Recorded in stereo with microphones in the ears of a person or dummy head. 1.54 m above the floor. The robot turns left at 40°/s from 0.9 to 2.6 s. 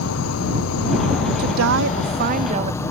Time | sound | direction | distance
0.0 | an insect | 85° left | ?
1.4 | a woman speaking | 95° right | ?